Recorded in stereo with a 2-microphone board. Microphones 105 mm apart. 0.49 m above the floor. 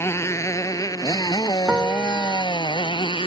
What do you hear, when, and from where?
0.0 s a motorcycle: 25° left (ahead or behind); by 3.3 s 55° left (ahead or behind)
1.7 s a piano: 10° right (ahead or behind)